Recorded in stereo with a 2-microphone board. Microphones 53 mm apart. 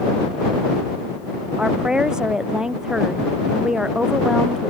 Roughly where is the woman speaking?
Centre.